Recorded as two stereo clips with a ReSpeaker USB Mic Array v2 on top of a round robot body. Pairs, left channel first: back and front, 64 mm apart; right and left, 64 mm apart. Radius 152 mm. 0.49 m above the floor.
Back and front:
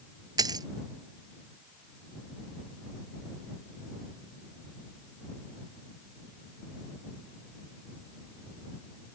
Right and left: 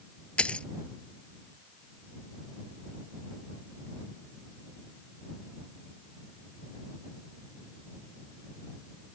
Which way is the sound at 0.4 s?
15° right.